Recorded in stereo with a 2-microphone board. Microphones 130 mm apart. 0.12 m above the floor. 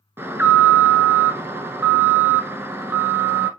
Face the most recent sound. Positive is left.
turn(degrees=-20)  # may be behind; listen again after turning